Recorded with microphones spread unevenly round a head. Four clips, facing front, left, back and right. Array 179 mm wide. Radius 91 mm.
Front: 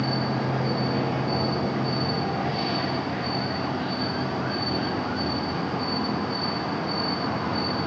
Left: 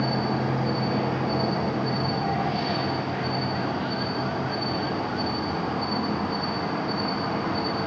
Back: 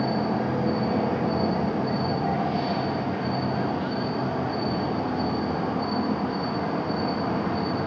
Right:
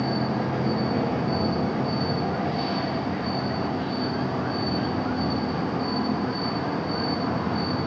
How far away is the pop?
I don't hear a pop.